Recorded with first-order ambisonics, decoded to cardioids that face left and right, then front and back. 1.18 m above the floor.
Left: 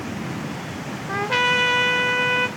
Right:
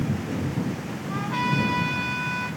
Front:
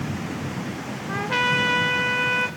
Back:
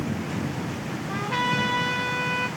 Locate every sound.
1.1 s a trumpet: 60° left, 3 m